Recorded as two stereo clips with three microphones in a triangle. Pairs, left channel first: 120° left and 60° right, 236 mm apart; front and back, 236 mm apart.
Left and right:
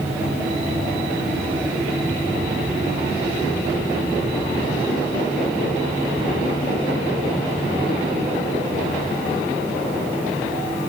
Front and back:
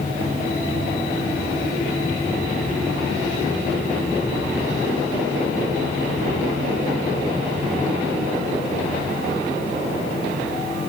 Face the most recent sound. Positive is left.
No sound to turn to.